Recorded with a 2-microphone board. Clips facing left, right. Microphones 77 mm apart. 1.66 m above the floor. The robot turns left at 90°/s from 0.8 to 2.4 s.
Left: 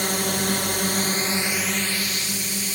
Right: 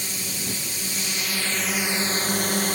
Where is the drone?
80° left; by 2.8 s 65° right.